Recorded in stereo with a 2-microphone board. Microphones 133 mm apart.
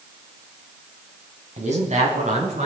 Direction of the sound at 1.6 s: 60° right (ahead or behind).